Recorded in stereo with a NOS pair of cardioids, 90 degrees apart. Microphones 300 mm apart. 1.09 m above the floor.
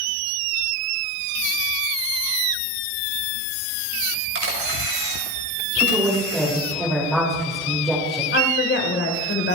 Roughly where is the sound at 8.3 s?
Ahead left.